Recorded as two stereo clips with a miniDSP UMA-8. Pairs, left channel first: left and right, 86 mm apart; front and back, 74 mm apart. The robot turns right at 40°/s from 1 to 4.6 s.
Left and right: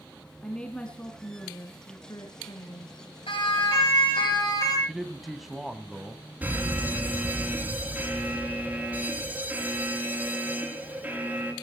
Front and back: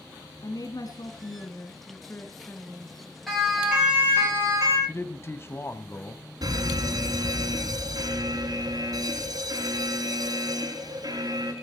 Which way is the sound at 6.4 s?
160° right.